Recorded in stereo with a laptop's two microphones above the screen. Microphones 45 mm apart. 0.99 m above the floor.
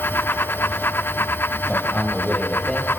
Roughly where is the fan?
Left.